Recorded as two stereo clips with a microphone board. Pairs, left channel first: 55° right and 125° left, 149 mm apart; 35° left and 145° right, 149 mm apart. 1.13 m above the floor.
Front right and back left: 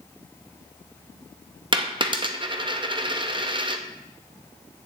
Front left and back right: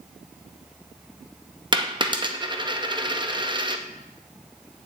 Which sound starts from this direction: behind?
A dropped coin, at 1.7 s.